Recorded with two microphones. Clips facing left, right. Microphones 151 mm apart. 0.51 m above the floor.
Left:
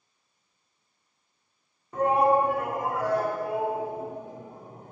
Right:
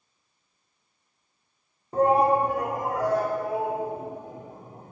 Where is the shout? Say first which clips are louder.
Right 1 dB; 30° right (ahead or behind), 0.8 m; by 4.9 s 40° right (ahead or behind), 2.5 m.